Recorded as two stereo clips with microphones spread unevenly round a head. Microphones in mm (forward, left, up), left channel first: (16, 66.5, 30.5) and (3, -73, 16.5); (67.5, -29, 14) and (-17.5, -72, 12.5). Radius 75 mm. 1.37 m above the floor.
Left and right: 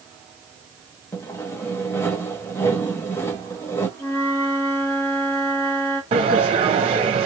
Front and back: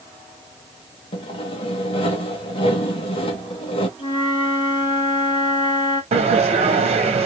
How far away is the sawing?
About 0.9 m.